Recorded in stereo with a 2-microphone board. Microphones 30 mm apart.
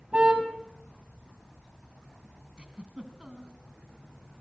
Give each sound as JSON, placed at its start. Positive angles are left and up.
{"t": 0.1, "sound": "a car horn", "side_deg": -40, "distance_m": 6.0}
{"t": 2.6, "sound": "a giggle", "side_deg": -35, "distance_m": 3.0}